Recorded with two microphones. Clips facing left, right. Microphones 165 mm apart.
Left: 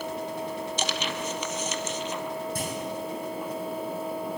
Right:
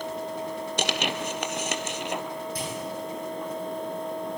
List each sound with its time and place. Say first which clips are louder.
0.8 s tearing paper: right 5 dB; 70° right (ahead or behind), 1.2 m
2.5 s a clunk: left 1 dB; 45° left (ahead or behind), 7 m